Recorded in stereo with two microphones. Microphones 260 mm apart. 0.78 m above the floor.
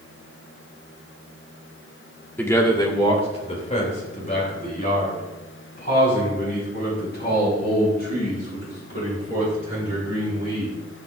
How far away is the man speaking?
About 1.8 m.